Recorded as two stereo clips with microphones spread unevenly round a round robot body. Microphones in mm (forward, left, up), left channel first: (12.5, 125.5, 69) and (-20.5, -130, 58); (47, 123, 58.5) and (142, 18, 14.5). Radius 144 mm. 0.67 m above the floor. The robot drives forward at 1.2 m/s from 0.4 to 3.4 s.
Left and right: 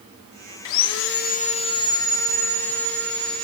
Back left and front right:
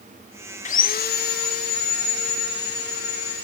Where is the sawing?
95° left, 0.7 m; by 3.4 s 170° left, 3.5 m.